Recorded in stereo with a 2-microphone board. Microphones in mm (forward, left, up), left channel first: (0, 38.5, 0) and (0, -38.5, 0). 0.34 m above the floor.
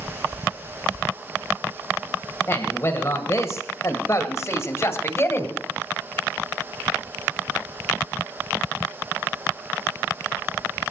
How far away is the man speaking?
About 2 m.